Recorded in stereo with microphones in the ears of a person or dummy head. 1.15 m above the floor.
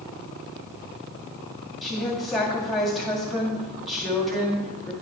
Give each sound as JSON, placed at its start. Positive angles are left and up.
{"t": 1.8, "sound": "a woman speaking", "side_deg": 10, "distance_m": 1.8}